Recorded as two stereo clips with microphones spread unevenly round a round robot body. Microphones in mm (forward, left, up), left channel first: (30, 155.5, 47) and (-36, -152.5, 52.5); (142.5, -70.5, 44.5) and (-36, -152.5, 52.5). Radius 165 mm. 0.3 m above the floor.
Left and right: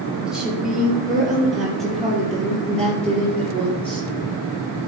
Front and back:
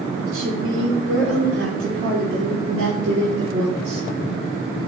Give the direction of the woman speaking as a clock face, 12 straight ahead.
6 o'clock.